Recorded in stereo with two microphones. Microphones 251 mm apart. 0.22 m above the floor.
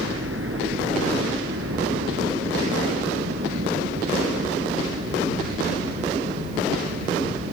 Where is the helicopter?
55° right (ahead or behind); by 7.5 s 60° right (ahead or behind).